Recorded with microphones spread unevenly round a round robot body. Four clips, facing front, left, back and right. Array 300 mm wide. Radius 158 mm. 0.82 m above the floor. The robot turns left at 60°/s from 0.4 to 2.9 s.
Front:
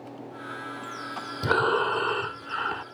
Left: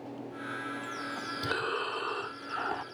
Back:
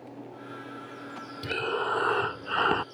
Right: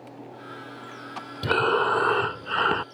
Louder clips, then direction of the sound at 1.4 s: Right 12 dB, front 6 dB; 45° right.